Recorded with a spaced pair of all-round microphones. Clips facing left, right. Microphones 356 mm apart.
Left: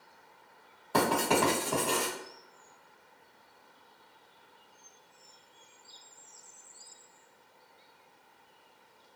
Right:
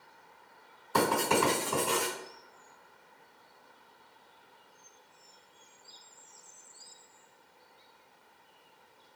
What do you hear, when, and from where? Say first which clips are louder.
0.9 s writing: left 1 dB; 75° left (ahead or behind), 1.4 m